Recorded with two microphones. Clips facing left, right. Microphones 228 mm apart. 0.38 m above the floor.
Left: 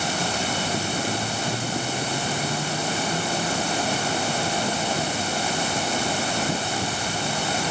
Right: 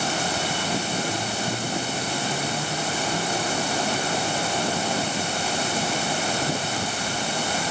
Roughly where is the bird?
No bird in this recording.